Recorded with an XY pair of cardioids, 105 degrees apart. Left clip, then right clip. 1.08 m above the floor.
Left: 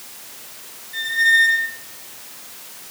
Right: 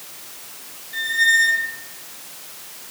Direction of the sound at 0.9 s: 45° right.